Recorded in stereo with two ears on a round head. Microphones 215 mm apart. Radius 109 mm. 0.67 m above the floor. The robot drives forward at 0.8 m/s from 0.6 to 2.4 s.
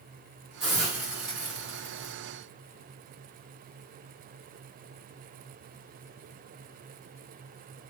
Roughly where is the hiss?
Centre.